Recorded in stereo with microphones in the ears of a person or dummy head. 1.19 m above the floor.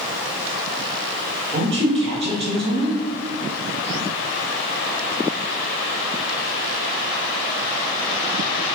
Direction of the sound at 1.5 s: 30° right (ahead or behind).